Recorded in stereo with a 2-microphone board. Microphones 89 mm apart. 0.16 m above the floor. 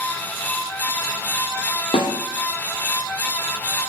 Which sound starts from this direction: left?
A snare drum, at 1.9 s.